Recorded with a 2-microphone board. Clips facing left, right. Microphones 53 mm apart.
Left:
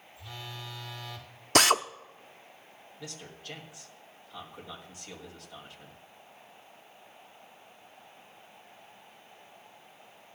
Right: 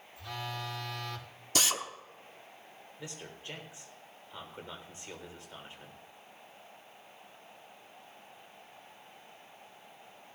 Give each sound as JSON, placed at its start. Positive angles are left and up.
{"t": 0.2, "sound": "a phone buzzing", "side_deg": -60, "distance_m": 1.9}
{"t": 1.6, "sound": "a drill", "side_deg": 55, "distance_m": 0.6}
{"t": 3.0, "sound": "a man speaking", "side_deg": -20, "distance_m": 3.5}